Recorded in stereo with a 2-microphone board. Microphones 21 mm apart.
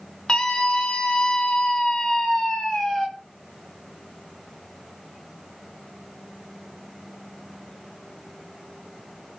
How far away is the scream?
About 2.5 m.